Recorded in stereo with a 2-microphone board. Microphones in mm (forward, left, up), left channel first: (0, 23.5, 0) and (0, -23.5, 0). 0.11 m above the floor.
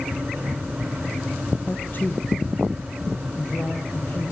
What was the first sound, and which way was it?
A man speaking, 45° left (ahead or behind).